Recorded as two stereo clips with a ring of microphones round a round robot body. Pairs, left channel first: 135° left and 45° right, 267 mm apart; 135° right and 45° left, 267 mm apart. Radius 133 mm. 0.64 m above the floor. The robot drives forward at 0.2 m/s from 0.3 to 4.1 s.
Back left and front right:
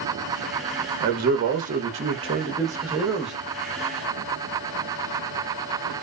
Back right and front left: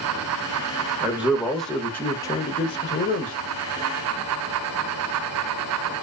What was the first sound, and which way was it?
A man speaking, 35° right.